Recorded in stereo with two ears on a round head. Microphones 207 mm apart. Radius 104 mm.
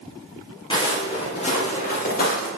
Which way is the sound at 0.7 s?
20° left (ahead or behind).